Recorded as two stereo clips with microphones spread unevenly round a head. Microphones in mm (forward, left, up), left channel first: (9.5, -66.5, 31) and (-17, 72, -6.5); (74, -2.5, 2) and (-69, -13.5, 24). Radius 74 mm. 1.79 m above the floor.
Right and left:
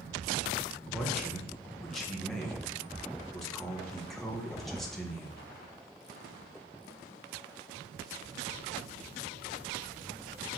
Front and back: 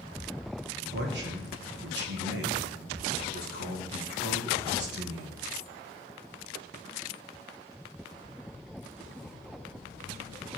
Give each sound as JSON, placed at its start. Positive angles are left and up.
{"t": 0.9, "sound": "a man speaking", "azimuth_deg": -165, "distance_m": 2.5}